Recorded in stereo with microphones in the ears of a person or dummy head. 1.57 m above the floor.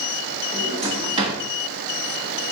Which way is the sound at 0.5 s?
30° right (ahead or behind).